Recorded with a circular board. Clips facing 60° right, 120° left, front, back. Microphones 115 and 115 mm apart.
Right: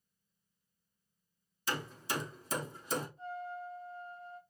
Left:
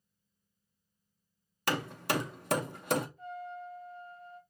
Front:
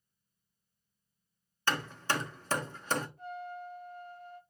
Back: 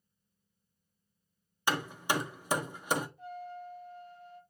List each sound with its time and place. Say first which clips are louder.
1.7 s hammering: left 6 dB, back 1 dB; 100° left, 0.7 m
3.2 s a trumpet: even, front 1 dB; 5° right, 4 m